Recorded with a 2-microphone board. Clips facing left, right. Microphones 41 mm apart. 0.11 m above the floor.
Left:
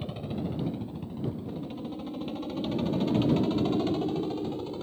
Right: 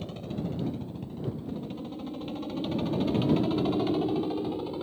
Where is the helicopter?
10° left (ahead or behind); by 4.8 s 10° right (ahead or behind).